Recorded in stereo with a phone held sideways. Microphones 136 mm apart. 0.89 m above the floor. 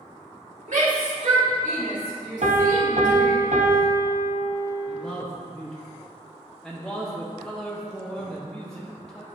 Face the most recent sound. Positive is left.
turn(degrees=5)  # may be behind; listen again after turning